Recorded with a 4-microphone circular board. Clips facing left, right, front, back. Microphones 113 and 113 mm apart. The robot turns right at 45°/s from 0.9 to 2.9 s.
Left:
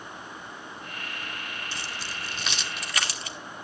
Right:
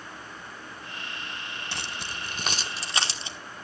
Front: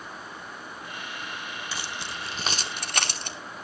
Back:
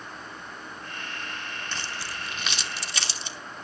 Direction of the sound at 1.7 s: 80° right.